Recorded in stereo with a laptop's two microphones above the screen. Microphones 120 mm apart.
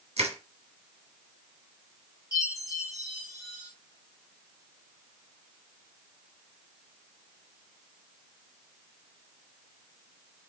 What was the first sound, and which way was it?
Crushing, 60° right (ahead or behind).